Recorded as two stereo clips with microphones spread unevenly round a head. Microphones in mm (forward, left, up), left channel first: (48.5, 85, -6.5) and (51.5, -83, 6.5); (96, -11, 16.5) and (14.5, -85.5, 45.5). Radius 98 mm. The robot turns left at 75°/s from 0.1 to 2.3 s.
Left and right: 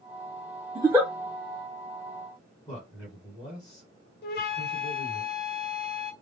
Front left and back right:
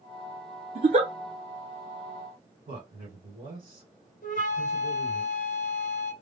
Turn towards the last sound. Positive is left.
turn(degrees=75)